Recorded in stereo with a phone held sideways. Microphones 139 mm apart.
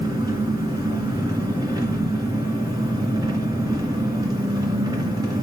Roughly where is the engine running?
Right.